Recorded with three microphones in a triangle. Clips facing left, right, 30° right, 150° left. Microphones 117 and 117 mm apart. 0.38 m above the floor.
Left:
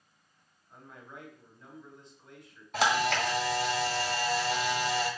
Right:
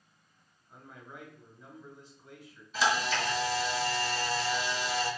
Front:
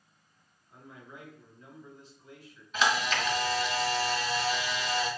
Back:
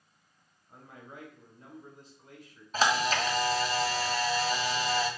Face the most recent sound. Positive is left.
turn(degrees=100)